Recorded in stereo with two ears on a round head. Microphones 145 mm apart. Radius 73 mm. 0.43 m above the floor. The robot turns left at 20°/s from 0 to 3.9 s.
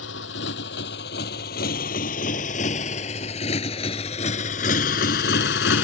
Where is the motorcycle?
85° left.